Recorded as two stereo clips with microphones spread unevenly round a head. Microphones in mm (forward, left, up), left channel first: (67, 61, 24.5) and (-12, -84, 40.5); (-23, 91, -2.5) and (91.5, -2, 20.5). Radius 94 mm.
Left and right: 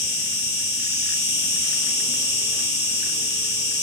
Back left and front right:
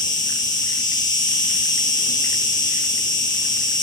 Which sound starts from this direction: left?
An insect, at 0.0 s.